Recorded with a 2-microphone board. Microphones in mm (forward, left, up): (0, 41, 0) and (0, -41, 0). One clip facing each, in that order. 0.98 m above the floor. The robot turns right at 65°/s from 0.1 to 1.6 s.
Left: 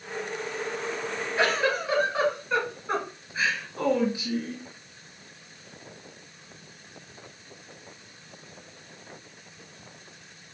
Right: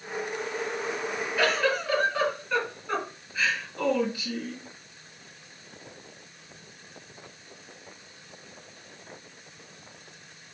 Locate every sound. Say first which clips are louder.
1.4 s a giggle: left 1 dB; 30° left (ahead or behind), 1.8 m; by 4.6 s 15° left (ahead or behind), 1.8 m